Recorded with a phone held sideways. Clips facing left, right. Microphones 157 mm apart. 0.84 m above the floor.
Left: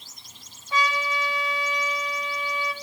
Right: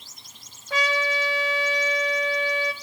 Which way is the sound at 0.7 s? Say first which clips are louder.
Right 1 dB; 75° right (ahead or behind).